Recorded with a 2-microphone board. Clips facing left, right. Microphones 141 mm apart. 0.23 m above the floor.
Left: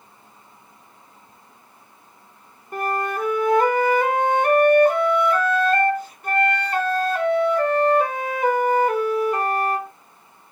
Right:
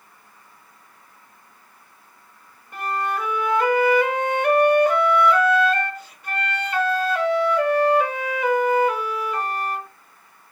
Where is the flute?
45° left (ahead or behind), 2.5 m.